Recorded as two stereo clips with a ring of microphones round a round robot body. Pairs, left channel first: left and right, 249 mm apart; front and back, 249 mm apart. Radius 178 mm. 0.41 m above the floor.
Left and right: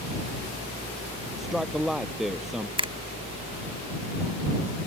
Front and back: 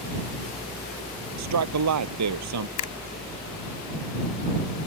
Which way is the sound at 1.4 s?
Straight behind.